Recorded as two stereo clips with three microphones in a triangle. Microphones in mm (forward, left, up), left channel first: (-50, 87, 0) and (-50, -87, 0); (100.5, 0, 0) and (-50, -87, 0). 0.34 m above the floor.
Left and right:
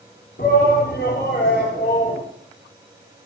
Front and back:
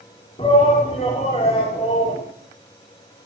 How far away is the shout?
About 3.5 m.